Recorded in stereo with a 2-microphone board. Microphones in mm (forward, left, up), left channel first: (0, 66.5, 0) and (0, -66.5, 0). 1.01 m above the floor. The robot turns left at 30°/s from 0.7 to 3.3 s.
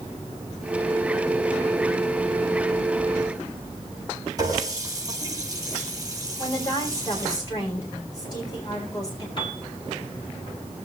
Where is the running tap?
25° right (ahead or behind), 7.5 m.